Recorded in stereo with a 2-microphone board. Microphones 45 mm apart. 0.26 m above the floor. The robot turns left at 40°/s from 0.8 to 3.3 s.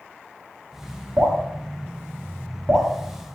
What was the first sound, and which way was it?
Dripping, 45° right (ahead or behind).